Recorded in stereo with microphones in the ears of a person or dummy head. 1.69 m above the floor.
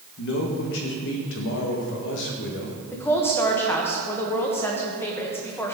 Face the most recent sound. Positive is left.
turn(degrees=15)  # may be behind; listen again after turning